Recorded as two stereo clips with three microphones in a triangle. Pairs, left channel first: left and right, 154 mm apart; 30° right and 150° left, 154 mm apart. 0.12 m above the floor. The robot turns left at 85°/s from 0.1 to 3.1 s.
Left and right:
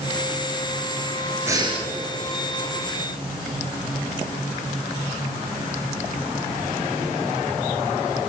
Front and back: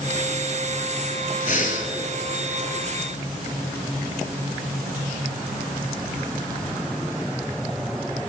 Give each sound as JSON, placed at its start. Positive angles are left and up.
{"t": 1.5, "sound": "breathing", "azimuth_deg": -20, "distance_m": 0.9}